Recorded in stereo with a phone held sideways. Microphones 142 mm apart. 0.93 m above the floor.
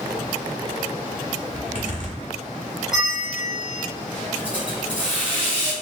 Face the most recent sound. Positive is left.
turn(degrees=-10)  # may be behind; listen again after turning